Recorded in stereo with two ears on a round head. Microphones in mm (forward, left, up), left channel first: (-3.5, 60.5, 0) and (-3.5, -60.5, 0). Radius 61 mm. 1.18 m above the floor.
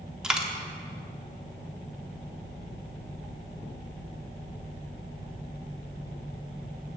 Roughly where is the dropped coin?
Centre.